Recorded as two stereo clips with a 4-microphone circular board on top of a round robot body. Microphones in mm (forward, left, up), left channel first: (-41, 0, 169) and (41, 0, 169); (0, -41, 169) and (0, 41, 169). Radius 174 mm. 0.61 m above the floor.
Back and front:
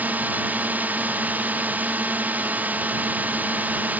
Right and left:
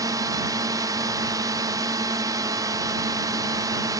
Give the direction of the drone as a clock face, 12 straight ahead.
10 o'clock.